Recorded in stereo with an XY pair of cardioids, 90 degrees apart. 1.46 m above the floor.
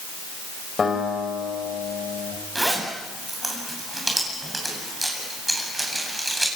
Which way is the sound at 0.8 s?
35° left.